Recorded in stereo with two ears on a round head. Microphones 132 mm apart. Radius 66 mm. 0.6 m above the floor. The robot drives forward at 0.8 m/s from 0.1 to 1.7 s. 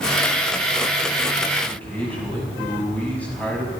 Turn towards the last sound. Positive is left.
turn(degrees=10)  # may be behind; listen again after turning